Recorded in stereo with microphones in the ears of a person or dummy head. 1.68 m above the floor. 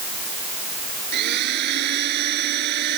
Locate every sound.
1.1 s a blender: 50° right (ahead or behind)